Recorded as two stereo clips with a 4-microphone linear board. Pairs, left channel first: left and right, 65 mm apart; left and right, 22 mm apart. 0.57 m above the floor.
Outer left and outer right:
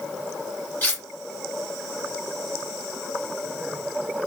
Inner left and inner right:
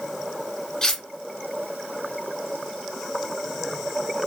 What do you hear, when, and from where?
0.8 s cutlery clinking: 30° left (ahead or behind), 0.8 m